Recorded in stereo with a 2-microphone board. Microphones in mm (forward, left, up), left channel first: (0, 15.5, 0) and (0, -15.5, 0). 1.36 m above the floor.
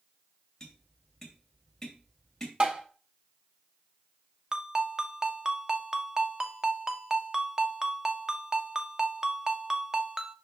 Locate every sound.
0.6 s tapping: 15° left (ahead or behind), 3 m
2.6 s tapping: 40° right (ahead or behind), 1.5 m
4.5 s a ringtone: 20° right (ahead or behind), 0.7 m